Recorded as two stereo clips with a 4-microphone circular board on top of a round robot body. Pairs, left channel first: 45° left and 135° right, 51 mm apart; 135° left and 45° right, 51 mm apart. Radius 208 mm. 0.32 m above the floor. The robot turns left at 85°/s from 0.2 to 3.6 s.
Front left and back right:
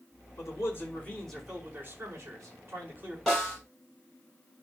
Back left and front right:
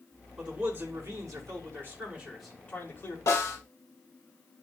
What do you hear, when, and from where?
0.4 s a man speaking: 40° left, 5 m; by 3.2 s 160° left, 5 m
3.3 s a snare drum: 130° left, 5.5 m; by 3.6 s 105° left, 5.5 m